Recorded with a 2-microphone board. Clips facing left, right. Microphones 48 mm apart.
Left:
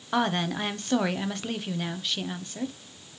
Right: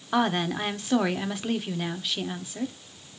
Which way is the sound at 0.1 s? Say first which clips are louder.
Right 1 dB; centre (ahead or behind).